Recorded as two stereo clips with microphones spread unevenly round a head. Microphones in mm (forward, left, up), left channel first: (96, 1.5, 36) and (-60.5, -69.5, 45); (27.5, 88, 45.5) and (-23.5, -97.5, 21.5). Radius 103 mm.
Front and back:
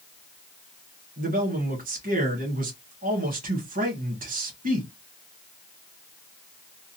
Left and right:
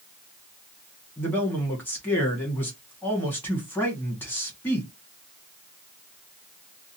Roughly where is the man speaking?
Behind left.